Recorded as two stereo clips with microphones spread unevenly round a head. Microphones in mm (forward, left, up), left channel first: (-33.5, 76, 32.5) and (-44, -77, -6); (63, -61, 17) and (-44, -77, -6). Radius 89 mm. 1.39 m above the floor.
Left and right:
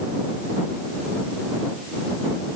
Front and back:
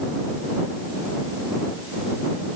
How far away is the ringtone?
I don't hear a ringtone.